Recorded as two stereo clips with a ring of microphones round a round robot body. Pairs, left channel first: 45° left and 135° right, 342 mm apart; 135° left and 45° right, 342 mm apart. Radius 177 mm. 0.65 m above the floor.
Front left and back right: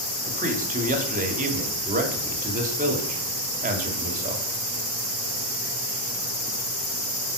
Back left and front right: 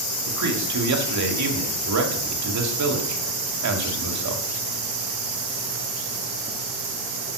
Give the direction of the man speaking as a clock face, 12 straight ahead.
2 o'clock.